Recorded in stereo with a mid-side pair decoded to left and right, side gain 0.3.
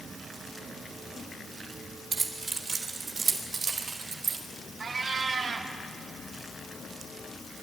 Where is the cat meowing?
65° right, 1.8 m.